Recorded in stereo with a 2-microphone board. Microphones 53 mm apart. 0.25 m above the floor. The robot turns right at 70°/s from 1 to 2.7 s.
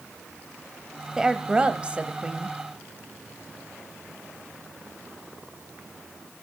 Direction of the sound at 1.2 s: 10° right (ahead or behind).